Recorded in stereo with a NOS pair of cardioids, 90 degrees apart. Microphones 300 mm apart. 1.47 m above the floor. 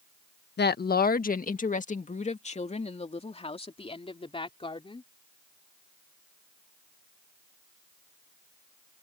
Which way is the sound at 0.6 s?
35° left.